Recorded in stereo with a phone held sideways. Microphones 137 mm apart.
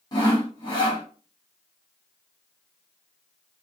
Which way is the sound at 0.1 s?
30° left (ahead or behind).